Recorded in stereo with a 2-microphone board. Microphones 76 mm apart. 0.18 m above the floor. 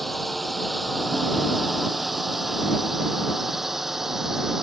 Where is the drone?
Centre (ahead or behind); by 4.6 s 5° right (ahead or behind).